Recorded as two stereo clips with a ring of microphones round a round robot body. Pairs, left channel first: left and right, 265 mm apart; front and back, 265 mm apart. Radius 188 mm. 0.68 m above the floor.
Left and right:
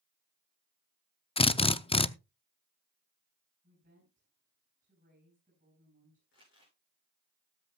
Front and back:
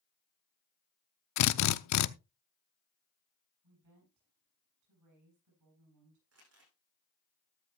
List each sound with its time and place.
1.4 s a drill: 20° left, 0.7 m
3.6 s a woman speaking: 160° right, 7.5 m
6.3 s crumpling: 150° left, 8 m